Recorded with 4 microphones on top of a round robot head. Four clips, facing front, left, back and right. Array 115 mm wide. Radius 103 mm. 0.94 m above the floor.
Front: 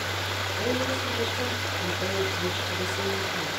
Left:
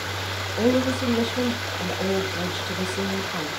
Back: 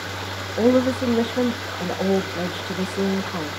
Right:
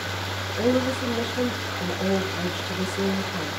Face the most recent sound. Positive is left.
turn(degrees=165)